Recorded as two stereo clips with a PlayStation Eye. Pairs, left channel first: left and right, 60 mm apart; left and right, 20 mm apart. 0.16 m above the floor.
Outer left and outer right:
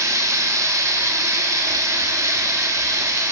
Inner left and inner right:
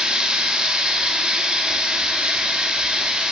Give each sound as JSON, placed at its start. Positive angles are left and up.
{"t": 0.0, "sound": "running water", "side_deg": -60, "distance_m": 0.8}